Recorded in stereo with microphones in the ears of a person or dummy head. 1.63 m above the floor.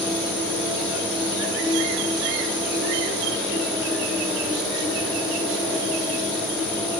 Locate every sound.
0.0 s an insect: 20° left (ahead or behind), 9 m